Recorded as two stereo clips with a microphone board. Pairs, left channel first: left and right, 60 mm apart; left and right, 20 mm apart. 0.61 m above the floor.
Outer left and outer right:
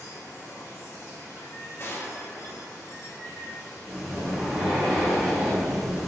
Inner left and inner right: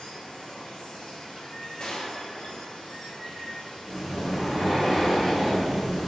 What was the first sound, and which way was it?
Running water, 65° left (ahead or behind).